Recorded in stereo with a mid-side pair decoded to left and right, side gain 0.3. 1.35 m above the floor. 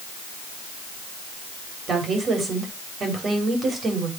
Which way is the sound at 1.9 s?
70° right.